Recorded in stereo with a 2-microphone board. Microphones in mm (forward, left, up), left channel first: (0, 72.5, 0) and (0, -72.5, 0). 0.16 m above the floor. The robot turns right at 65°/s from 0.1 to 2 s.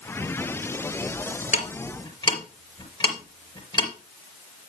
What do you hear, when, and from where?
1.5 s ticking: 55° left (ahead or behind), 3.5 m; by 3.9 s 30° left (ahead or behind), 3.5 m